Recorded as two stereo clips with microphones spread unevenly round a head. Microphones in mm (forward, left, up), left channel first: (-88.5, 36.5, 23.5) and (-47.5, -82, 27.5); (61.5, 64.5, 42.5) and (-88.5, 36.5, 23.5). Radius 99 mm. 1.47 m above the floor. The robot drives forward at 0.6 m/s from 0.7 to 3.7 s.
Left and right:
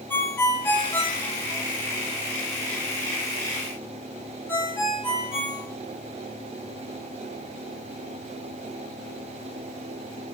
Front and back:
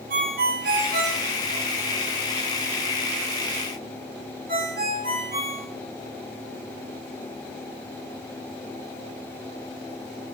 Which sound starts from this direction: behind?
A ringtone, at 0.1 s.